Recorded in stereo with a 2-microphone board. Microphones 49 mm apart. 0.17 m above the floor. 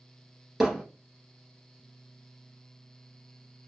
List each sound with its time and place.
0.6 s hammering: centre (ahead or behind), 1.3 m